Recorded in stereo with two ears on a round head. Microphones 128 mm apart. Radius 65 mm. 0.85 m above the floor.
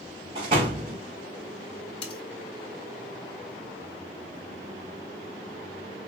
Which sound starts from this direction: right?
A door slam, at 0.3 s.